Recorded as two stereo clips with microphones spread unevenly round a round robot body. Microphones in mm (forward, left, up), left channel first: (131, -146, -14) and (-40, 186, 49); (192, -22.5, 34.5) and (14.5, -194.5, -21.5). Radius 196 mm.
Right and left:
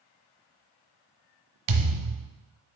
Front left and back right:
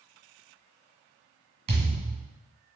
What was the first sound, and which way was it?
A thud, 155° left.